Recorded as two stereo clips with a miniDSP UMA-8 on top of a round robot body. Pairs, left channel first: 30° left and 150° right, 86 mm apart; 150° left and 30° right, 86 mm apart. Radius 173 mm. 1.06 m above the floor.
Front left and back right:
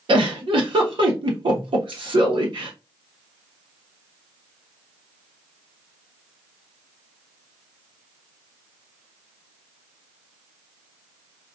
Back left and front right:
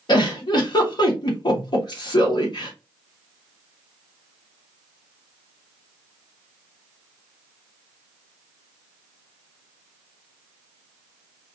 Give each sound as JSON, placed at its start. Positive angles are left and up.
{"t": 0.1, "sound": "a giggle", "azimuth_deg": -175, "distance_m": 0.9}